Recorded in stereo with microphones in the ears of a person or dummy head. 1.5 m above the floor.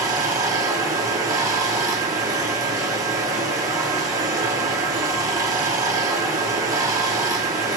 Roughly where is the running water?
Centre.